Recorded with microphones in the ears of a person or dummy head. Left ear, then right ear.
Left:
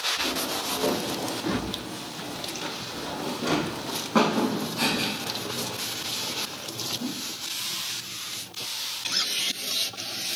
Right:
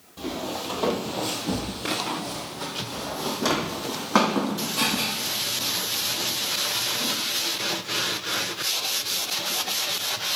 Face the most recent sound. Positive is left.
turn(degrees=-65)  # may be behind; listen again after turning